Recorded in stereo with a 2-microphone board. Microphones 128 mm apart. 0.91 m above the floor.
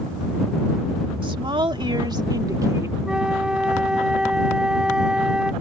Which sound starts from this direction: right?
A woman speaking, at 1.2 s.